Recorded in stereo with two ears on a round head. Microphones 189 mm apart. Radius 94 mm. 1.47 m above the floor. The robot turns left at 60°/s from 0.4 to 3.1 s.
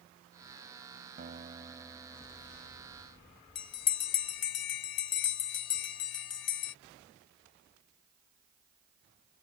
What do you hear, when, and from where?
1.2 s a guitar: 130° right; by 3.4 s 115° left
3.5 s a bell: 60° left (ahead or behind)